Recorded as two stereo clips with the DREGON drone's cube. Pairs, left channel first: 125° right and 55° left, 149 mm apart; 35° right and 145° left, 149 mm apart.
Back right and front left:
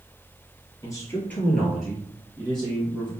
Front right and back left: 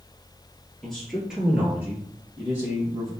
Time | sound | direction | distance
0.8 | a man speaking | 110° right | 1.6 m